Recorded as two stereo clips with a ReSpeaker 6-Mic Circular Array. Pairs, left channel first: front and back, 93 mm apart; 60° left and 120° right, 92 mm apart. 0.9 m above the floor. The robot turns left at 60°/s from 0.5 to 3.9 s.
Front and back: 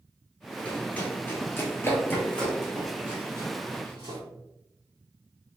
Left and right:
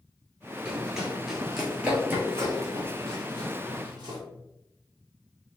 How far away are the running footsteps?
About 0.9 m.